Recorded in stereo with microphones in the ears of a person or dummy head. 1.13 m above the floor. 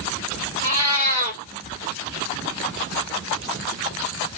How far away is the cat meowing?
About 1.5 m.